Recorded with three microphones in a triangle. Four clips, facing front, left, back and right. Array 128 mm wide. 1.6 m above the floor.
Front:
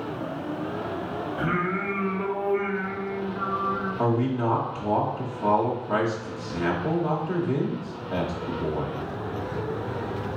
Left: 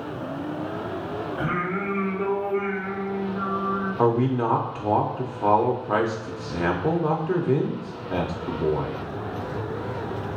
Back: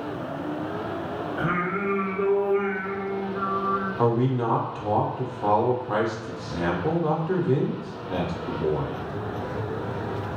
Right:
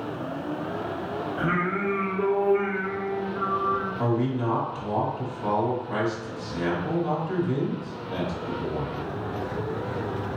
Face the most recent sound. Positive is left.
turn(degrees=110)